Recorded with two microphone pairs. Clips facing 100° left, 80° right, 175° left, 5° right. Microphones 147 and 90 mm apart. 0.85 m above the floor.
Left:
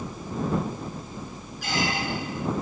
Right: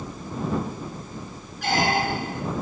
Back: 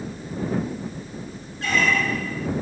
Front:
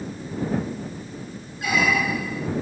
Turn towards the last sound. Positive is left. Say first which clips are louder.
# right 5 dB, even
turn(degrees=-80)